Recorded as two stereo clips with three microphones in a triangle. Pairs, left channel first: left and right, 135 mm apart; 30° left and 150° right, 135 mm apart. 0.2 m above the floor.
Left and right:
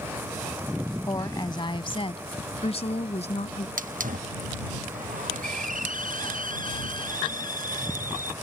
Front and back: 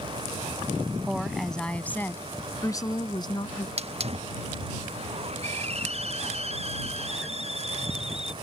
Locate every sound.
1.1 s a woman speaking: 125° left; by 3.7 s 75° left
3.8 s a hiss: 105° right